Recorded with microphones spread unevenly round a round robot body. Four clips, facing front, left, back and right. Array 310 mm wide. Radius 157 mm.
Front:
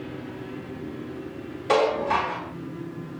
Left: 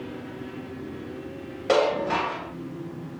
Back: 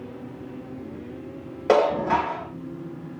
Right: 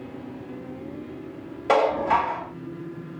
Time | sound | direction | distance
1.7 | dishes clattering | 175° right | 3 m